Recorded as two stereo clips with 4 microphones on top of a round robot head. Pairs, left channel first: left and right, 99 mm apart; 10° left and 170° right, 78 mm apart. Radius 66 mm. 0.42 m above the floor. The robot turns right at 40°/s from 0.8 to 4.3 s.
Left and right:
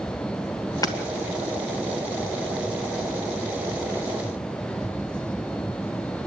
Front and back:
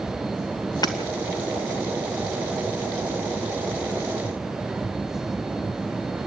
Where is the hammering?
40° left, 2.5 m; by 1.0 s 45° left, 2.5 m.